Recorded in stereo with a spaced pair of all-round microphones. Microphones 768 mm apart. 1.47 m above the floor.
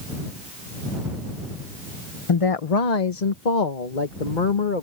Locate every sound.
2.3 s a woman speaking: 40° left (ahead or behind); by 4.8 s 85° left